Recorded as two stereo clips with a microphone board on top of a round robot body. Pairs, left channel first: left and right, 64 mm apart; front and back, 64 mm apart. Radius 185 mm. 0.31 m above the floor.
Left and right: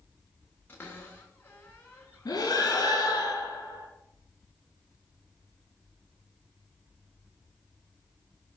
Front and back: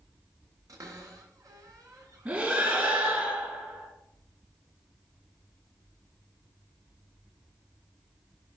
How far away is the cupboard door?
About 3 m.